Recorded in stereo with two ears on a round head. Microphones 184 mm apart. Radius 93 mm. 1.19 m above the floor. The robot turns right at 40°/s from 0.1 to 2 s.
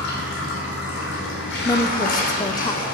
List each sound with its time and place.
0.0 s running water: 55° left, 2.5 m; by 2.9 s 135° left, 2.5 m
1.6 s a woman speaking: 20° left (ahead or behind), 0.6 m